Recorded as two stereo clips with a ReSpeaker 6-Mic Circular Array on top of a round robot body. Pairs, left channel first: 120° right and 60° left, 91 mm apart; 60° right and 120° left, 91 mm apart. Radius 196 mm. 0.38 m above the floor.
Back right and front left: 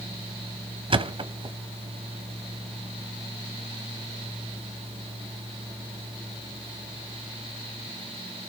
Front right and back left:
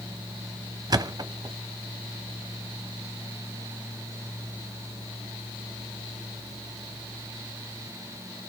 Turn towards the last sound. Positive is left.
turn(degrees=75)